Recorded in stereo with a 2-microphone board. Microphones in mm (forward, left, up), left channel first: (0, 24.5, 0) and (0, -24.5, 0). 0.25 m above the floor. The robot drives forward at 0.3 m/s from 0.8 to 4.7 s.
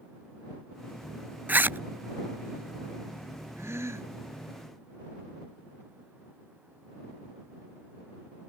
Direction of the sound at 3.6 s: 75° right (ahead or behind).